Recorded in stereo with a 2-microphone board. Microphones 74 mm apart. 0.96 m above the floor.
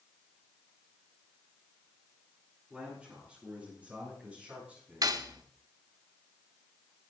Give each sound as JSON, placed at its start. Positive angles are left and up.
{"t": 2.7, "sound": "a man speaking", "side_deg": -10, "distance_m": 8.5}
{"t": 5.0, "sound": "cutlery clinking", "side_deg": -55, "distance_m": 1.0}